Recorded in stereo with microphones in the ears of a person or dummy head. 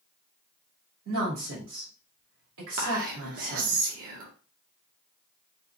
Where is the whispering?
45° right (ahead or behind), 0.5 m.